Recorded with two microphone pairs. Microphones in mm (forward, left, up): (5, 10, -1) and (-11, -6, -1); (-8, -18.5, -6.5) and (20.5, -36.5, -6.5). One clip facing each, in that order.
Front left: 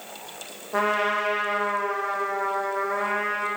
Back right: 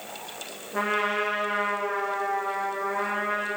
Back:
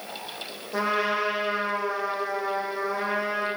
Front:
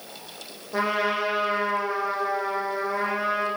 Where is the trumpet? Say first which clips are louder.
Front left 2 dB, front 1 dB; 55° left, 7 m.